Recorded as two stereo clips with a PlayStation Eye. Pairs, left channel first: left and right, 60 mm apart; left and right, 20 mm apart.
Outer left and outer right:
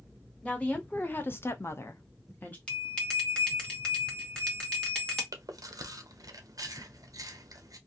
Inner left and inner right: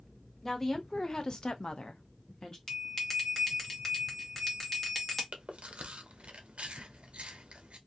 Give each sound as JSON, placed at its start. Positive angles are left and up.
{"t": 0.4, "sound": "a woman speaking", "side_deg": 20, "distance_m": 1.0}
{"t": 2.7, "sound": "a bell", "side_deg": 15, "distance_m": 1.2}
{"t": 5.3, "sound": "chewing", "side_deg": -75, "distance_m": 0.6}